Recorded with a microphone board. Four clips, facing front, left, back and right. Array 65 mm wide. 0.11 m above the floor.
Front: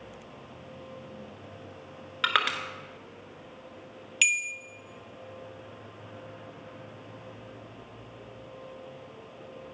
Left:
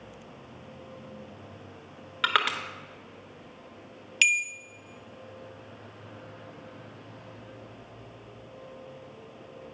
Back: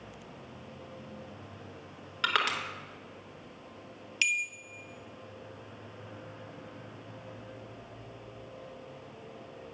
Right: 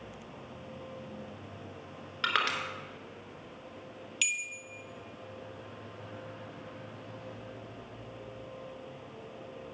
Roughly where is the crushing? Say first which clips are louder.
Left 4 dB, front 2 dB; ahead left.